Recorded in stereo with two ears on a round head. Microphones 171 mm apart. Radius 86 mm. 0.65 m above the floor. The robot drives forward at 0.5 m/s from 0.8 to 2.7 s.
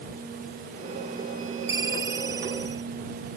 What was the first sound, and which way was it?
A ringtone, 15° right (ahead or behind).